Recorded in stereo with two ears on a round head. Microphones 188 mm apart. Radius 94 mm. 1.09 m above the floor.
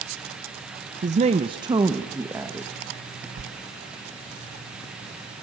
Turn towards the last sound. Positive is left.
turn(degrees=-65)  # may be behind; listen again after turning